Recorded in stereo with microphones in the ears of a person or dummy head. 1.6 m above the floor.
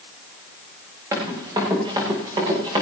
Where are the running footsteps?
20° right (ahead or behind), 6.5 m; by 2.8 s 25° right (ahead or behind), 6.5 m.